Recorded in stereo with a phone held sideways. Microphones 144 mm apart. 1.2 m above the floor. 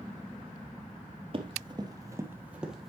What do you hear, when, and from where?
1.3 s running footsteps: 40° right (ahead or behind), 1.5 m; by 2.9 s centre (ahead or behind), 1.5 m